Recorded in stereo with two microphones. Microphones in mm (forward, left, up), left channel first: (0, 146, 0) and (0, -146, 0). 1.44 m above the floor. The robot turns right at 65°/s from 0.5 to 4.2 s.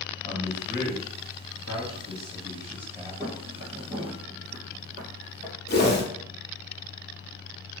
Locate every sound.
0.2 s a man speaking: 25° left (ahead or behind), 1.8 m; by 3.1 s 15° right (ahead or behind), 1.8 m
3.2 s footsteps: 15° right (ahead or behind), 1.9 m; by 5.5 s 25° right (ahead or behind), 2.0 m
5.7 s a whoosh: 35° left (ahead or behind), 1.2 m